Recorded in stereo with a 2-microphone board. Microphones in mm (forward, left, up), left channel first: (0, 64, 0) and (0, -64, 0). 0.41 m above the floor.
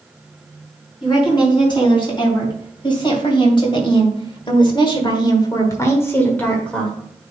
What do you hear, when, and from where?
1.0 s a woman speaking: 40° left (ahead or behind), 4 m; by 7.0 s 5° left (ahead or behind), 1.6 m